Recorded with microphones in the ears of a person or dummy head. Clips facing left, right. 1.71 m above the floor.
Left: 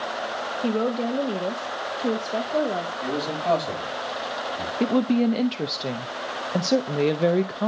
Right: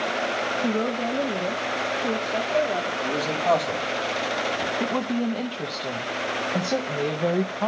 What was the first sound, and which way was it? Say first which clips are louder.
A woman speaking: left 3 dB; 20° left (ahead or behind).